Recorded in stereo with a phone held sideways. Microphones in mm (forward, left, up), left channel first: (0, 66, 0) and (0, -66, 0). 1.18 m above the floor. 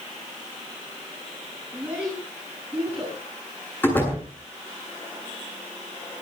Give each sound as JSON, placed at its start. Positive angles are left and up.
{"t": 1.7, "sound": "a child speaking", "side_deg": -10, "distance_m": 8.0}
{"t": 3.8, "sound": "a door slam", "side_deg": 15, "distance_m": 8.5}